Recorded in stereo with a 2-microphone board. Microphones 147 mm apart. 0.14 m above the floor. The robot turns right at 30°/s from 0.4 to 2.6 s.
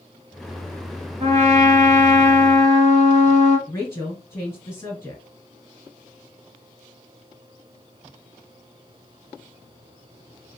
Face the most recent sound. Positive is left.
turn(degrees=20)  # may be behind; listen again after turning